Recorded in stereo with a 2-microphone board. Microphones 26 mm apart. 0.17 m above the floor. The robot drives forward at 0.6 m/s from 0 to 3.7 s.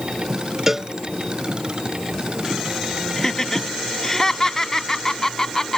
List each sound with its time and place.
0.7 s a cowbell: 20° right (ahead or behind); by 0.9 s 15° right (ahead or behind)
3.2 s laughter: 20° left (ahead or behind)